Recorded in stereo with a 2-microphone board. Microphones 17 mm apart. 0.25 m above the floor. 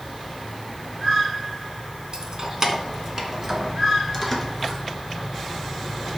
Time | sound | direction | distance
2.1 | keys jangling | 45° right (ahead or behind) | 1.4 m